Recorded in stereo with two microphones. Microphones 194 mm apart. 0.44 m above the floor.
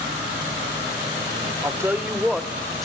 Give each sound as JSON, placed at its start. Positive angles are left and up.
{"t": 1.6, "sound": "a woman speaking", "side_deg": -15, "distance_m": 0.8}